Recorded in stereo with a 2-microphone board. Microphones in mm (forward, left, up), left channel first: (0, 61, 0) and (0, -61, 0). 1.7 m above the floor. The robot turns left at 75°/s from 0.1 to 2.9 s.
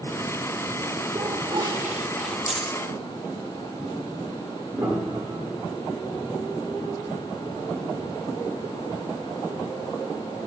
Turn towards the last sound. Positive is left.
turn(degrees=-25)  # may be behind; listen again after turning